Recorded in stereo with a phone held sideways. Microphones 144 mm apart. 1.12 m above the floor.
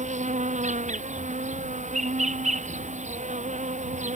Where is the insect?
55° right (ahead or behind).